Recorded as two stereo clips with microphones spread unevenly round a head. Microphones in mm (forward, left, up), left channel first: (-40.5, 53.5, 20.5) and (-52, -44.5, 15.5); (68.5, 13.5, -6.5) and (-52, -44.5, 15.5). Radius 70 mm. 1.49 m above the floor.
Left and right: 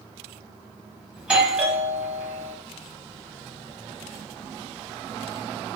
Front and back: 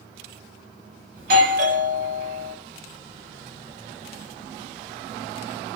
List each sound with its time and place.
1.2 s a doorbell: 170° right, 1.6 m